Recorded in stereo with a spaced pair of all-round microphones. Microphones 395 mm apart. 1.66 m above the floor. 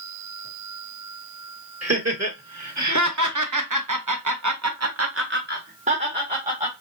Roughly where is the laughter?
Right.